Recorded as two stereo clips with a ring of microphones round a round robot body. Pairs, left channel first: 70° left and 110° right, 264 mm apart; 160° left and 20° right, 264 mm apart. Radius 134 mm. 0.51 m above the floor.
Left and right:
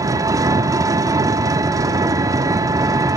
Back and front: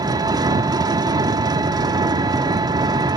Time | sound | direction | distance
0.0 | an engine running | 65° right | 1.0 m